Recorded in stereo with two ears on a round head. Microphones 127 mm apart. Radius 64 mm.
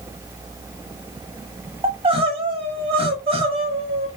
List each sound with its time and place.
1.8 s crying: 40° right (ahead or behind), 1.0 m